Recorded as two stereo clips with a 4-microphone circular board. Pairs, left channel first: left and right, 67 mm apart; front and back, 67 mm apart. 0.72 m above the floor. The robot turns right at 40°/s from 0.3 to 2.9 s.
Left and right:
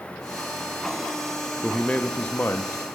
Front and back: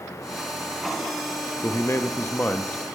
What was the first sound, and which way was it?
A man speaking, 15° left.